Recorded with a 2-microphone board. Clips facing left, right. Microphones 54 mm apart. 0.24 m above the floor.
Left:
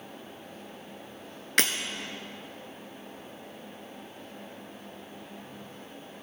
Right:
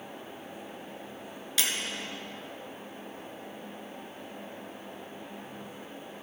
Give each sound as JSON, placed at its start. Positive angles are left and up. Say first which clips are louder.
{"t": 1.6, "sound": "breaking glass", "louder": "left 5 dB", "side_deg": 60, "distance_m": 1.1}